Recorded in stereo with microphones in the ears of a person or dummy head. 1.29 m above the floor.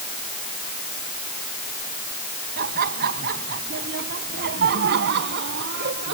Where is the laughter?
50° right (ahead or behind); by 6.1 s 55° right (ahead or behind).